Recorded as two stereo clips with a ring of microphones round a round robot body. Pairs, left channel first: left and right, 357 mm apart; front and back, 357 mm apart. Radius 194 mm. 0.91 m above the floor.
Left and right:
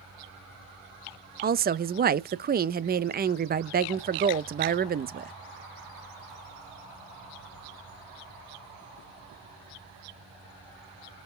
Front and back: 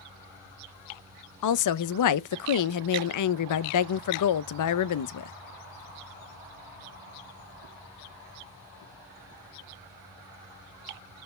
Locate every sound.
1.4 s a woman speaking: 30° right, 0.6 m